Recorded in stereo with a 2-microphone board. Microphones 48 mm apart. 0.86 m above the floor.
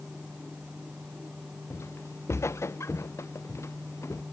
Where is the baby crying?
No baby crying in this recording.